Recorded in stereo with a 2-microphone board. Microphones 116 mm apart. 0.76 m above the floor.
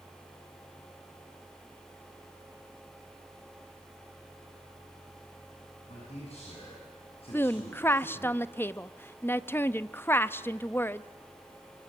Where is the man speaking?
65° left (ahead or behind), 7 m; by 8.3 s 50° left (ahead or behind), 4.5 m.